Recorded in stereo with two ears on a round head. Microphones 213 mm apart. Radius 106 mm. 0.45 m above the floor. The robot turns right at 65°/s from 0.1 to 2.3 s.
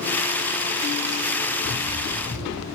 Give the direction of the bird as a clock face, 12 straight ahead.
10 o'clock.